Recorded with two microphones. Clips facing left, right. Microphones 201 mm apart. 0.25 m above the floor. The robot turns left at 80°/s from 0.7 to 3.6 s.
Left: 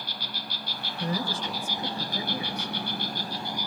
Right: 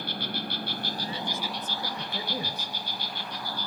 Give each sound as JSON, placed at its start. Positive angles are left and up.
{"t": 0.0, "sound": "an insect", "azimuth_deg": -115, "distance_m": 1.0}
{"t": 1.0, "sound": "a woman speaking", "azimuth_deg": 65, "distance_m": 2.5}